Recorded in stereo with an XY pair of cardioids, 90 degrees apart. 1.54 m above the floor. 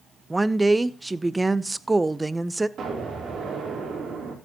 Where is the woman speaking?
20° right, 0.6 m.